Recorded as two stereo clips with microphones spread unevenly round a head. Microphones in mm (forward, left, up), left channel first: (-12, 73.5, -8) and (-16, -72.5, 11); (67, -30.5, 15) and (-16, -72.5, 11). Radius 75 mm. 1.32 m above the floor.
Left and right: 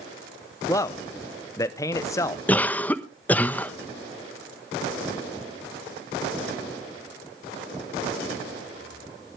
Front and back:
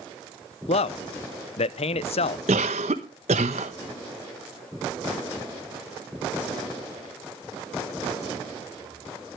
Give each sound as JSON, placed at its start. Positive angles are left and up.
{"t": 0.7, "sound": "a man speaking", "azimuth_deg": 20, "distance_m": 0.7}
{"t": 2.5, "sound": "a cough", "azimuth_deg": 170, "distance_m": 1.1}